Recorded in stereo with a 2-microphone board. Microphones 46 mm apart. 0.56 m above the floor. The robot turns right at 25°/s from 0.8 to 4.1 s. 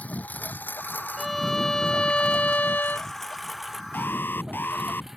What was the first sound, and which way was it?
A lawn mower, 30° left (ahead or behind).